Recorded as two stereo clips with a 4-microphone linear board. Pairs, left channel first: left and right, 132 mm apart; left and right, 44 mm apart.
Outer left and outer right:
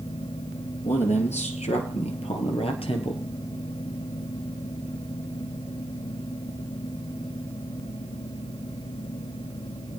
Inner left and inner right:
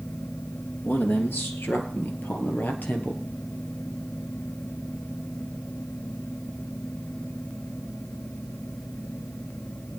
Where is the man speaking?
55° left (ahead or behind), 1.9 m; by 3.3 s 40° left (ahead or behind), 2 m.